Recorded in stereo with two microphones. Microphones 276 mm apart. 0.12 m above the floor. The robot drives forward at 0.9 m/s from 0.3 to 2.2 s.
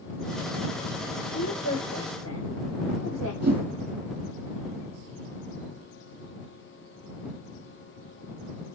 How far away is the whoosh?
About 2.5 m.